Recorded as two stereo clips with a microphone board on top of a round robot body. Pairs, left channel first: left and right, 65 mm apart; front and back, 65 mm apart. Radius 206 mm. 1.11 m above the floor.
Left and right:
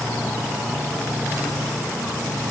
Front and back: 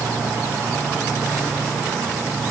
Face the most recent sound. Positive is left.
No sound to turn to.